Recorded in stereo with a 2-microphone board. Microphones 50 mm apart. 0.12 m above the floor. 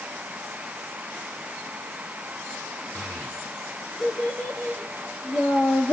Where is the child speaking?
35° left (ahead or behind), 2.5 m.